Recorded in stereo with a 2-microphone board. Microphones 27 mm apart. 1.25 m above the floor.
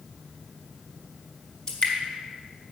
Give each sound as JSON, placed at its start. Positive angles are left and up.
{"t": 1.7, "sound": "dripping", "side_deg": 30, "distance_m": 2.0}